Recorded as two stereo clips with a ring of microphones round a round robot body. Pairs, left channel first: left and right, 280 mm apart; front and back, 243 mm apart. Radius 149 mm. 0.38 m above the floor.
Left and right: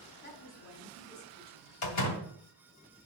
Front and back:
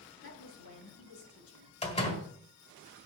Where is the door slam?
65° left, 2 m.